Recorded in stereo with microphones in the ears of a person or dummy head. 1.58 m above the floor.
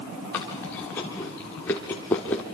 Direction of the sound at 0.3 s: 15° left (ahead or behind).